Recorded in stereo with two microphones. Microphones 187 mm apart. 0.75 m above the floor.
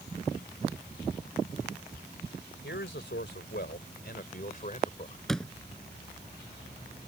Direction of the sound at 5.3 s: Centre (ahead or behind).